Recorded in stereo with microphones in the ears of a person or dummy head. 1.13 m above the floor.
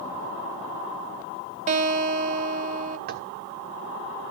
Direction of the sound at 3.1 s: 50° right (ahead or behind).